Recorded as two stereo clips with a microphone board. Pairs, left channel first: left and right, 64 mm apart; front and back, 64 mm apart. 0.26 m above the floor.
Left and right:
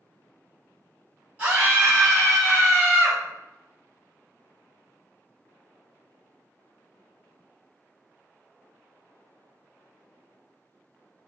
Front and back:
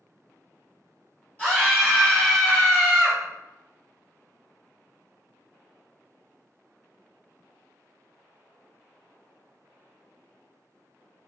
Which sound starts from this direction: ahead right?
A scream, at 1.4 s.